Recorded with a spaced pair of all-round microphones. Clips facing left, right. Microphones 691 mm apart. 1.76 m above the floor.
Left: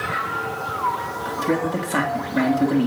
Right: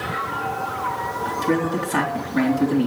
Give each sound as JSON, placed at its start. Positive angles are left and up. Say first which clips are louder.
{"t": 1.2, "sound": "a man speaking", "louder": "right 1 dB", "side_deg": 5, "distance_m": 3.5}